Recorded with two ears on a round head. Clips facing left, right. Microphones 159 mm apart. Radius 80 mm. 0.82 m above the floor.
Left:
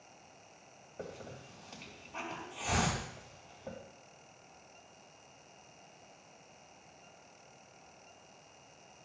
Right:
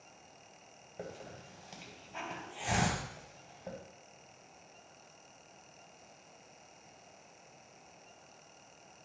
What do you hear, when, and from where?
1.0 s a hiss: 10° right (ahead or behind), 2.5 m